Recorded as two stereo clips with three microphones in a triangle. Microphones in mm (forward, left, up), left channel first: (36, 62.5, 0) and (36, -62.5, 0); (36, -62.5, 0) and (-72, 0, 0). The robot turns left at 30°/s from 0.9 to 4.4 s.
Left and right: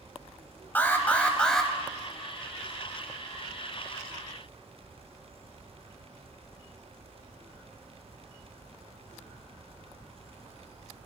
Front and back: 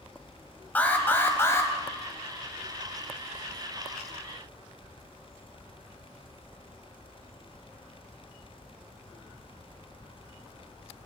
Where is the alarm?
30° left, 1.3 m; by 1.7 s 5° left, 1.3 m.